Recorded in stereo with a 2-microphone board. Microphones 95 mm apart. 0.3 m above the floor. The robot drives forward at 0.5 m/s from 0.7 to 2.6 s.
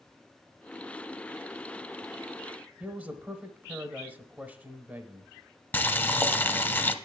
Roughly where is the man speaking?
Centre.